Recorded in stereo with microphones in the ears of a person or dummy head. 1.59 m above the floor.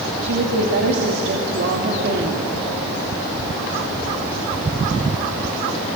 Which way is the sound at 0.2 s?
60° right (ahead or behind).